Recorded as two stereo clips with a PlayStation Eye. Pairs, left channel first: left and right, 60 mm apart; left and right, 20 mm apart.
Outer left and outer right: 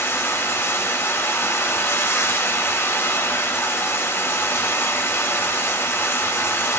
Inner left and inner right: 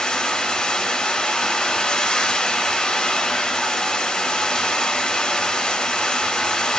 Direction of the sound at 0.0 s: 40° left (ahead or behind).